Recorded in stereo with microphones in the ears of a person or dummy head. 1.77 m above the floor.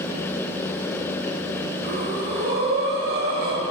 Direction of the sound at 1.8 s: 60° right (ahead or behind).